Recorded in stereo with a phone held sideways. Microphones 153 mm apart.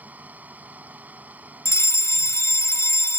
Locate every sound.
0.0 s a fan: 10° right (ahead or behind)
1.6 s a fire alarm: 20° left (ahead or behind)